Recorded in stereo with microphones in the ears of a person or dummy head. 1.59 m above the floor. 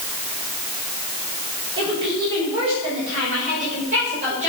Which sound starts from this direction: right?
A woman speaking, at 1.8 s.